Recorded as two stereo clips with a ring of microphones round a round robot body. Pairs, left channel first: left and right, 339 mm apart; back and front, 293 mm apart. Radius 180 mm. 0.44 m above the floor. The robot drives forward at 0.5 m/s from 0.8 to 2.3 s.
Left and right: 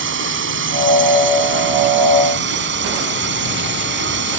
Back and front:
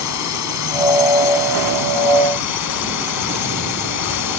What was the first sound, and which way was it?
A drone, 145° right.